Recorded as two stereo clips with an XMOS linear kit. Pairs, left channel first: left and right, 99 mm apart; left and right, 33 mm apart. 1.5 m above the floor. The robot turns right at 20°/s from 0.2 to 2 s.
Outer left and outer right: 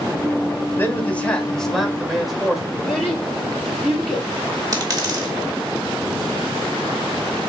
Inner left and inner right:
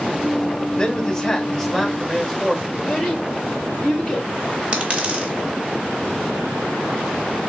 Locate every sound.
0.8 s a man speaking: 20° left (ahead or behind), 1.5 m; by 2.6 s 5° right (ahead or behind), 1.5 m
2.7 s a child speaking: centre (ahead or behind), 2.5 m
4.7 s a dropped coin: 40° right (ahead or behind), 1.2 m